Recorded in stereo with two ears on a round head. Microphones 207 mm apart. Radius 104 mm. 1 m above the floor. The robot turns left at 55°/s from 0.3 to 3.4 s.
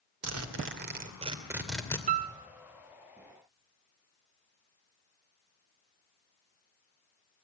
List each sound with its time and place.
0.2 s a zipper: 100° right, 2.5 m; by 2.0 s 165° left, 2.5 m
2.1 s a piano: 35° right (ahead or behind), 0.7 m; by 2.3 s 25° right (ahead or behind), 0.7 m